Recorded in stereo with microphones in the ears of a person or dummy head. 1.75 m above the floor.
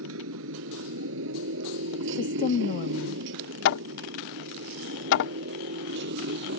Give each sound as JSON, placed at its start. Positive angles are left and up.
{"t": 0.0, "sound": "a motorcycle", "side_deg": -75}
{"t": 2.0, "sound": "a woman speaking", "side_deg": 40}
{"t": 3.6, "sound": "hammering", "side_deg": 65}